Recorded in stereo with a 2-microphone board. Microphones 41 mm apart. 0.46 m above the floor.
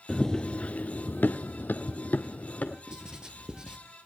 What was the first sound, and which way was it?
Running footsteps, 10° left (ahead or behind).